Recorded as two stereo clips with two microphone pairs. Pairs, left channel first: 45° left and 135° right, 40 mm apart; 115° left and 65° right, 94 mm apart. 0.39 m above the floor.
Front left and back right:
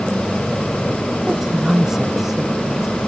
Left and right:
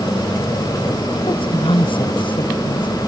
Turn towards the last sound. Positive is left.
turn(degrees=140)